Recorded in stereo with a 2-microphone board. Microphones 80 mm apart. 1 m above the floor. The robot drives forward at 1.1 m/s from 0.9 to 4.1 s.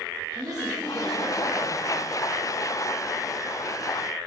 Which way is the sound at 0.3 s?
50° right (ahead or behind).